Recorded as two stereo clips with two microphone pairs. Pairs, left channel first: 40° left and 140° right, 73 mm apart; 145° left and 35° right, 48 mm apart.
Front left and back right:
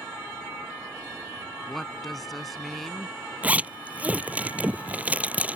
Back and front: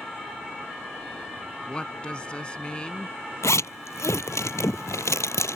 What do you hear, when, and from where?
1.7 s a woman speaking: 125° left
3.4 s a zipper: 150° left